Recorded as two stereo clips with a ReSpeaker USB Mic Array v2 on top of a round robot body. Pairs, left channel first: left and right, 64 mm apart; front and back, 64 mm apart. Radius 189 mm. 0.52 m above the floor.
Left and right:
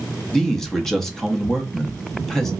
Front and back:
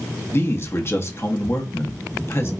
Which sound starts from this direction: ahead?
A man speaking, at 0.3 s.